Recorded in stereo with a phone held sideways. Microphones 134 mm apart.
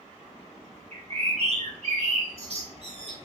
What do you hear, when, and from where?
0.9 s a bird: 50° right (ahead or behind), 1.2 m